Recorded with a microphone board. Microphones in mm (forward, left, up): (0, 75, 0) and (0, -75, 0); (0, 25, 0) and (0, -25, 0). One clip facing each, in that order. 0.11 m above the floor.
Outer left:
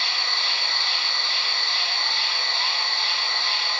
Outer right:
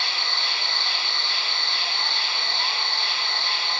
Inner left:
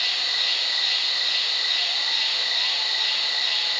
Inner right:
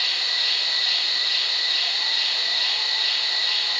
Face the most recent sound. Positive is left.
turn(degrees=-30)  # may be behind; listen again after turning